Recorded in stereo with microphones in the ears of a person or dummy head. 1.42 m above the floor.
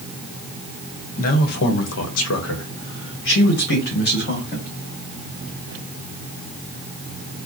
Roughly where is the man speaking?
Left.